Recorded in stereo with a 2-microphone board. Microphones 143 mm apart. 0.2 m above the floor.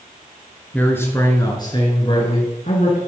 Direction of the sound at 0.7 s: 10° left (ahead or behind).